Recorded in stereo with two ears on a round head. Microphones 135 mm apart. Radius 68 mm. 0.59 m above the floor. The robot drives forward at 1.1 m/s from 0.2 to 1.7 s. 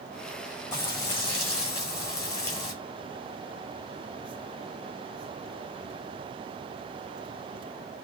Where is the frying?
20° left (ahead or behind), 8 m.